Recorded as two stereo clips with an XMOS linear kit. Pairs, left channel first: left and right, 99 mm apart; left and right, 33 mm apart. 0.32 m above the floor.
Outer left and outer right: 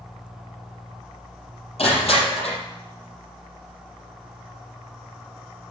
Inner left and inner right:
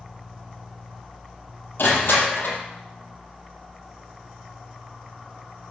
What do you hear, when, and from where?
1.8 s crushing: 75° left (ahead or behind), 5.5 m